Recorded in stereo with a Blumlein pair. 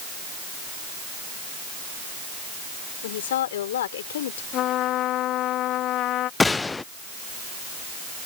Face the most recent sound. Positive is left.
turn(degrees=10)